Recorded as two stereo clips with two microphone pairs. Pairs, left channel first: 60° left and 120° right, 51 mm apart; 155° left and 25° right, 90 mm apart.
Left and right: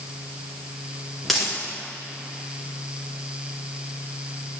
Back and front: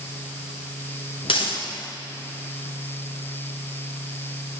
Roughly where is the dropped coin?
Behind left.